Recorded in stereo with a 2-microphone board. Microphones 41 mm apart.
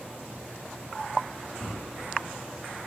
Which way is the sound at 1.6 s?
75° left (ahead or behind).